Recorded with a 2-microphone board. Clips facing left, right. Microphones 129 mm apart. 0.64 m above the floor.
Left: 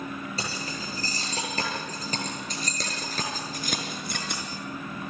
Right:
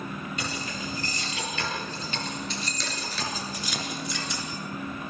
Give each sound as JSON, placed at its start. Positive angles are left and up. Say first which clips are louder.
{"t": 0.4, "sound": "keys jangling", "louder": "right 1 dB", "side_deg": 35, "distance_m": 9.5}